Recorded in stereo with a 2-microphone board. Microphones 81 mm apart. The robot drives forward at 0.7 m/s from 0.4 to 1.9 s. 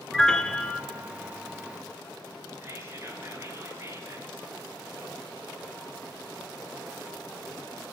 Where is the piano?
5° left (ahead or behind), 1.3 m; by 0.8 s 10° left (ahead or behind), 1.0 m.